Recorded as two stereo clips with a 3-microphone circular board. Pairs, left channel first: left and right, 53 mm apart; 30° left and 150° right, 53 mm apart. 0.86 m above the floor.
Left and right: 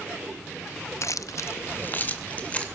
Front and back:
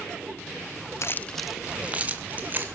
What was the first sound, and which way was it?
Keys jangling, 60° left.